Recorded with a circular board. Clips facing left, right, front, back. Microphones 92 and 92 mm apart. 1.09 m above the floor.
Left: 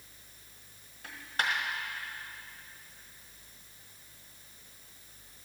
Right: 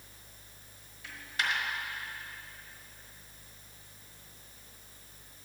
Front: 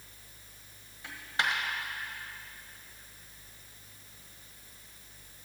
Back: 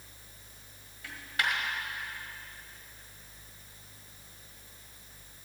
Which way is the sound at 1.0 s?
60° left.